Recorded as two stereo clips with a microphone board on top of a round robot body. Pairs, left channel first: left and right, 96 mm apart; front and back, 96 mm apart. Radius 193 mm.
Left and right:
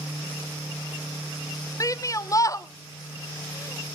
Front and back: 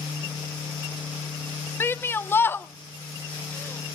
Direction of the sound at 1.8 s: 55° left.